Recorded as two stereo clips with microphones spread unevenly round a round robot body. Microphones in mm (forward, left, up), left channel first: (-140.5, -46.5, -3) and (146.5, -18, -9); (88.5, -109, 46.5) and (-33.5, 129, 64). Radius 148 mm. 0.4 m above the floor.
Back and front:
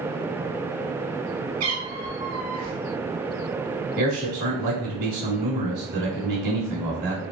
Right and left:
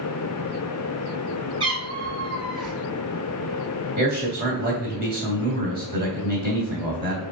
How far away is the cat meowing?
About 1.5 m.